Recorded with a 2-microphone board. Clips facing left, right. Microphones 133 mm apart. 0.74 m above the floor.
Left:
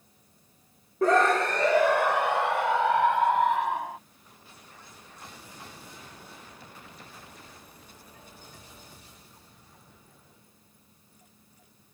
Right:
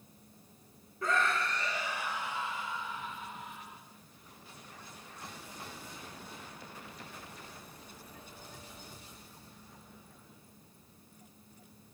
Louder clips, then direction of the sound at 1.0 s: Left 11 dB; 70° left (ahead or behind).